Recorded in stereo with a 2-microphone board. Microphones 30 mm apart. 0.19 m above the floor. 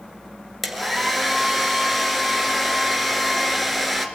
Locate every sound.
0.6 s a hair dryer: centre (ahead or behind), 2.5 m